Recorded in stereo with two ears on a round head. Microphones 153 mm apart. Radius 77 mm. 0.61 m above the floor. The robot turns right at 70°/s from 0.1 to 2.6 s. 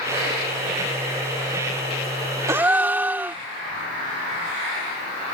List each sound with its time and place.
2.5 s a gasp: 20° right (ahead or behind); by 3.4 s 10° right (ahead or behind)